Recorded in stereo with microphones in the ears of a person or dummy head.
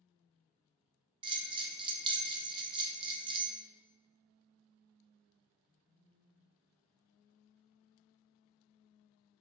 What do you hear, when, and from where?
1.2 s a bell: 20° right (ahead or behind), 0.6 m